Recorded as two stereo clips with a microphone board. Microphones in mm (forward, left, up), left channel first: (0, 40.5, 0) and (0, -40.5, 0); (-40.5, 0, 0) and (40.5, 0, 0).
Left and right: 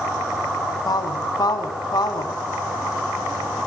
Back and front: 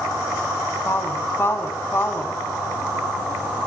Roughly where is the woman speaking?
Behind left.